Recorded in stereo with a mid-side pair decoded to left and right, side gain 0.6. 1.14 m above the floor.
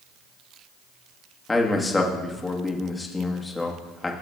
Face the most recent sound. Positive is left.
turn(degrees=15)